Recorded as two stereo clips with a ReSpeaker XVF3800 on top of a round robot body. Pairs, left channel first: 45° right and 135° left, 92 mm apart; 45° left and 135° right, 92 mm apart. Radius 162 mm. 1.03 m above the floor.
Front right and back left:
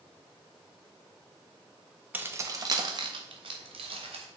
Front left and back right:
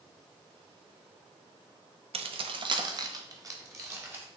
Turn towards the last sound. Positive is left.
turn(degrees=160)